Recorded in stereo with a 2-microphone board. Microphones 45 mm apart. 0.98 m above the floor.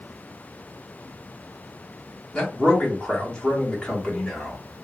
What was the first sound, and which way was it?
A man speaking, 20° left (ahead or behind).